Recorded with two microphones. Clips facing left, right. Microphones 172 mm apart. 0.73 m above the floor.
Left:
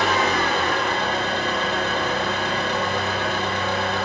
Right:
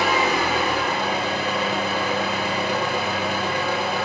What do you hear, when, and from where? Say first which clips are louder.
0.0 s an engine running: even; 10° right (ahead or behind), 1.9 m